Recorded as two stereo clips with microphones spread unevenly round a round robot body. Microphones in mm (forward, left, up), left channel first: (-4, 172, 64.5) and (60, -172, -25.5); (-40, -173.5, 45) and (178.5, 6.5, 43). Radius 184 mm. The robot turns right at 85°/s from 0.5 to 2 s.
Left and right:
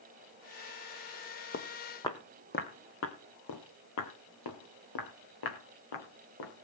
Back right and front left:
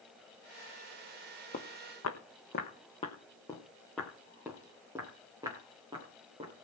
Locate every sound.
1.5 s footsteps: 150° left, 1.5 m; by 6.5 s 115° left, 4.5 m